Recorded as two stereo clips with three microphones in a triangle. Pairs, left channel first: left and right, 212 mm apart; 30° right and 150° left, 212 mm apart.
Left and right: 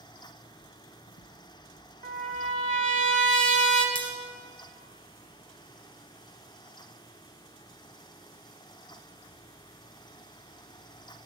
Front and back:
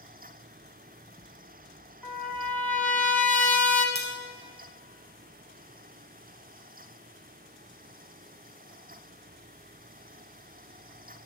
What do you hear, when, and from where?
0.6 s footsteps: 90° left, 0.6 m; by 3.0 s 70° left, 2 m
2.0 s a trumpet: 110° right, 1.2 m
4.0 s cutlery clinking: 95° left, 2.5 m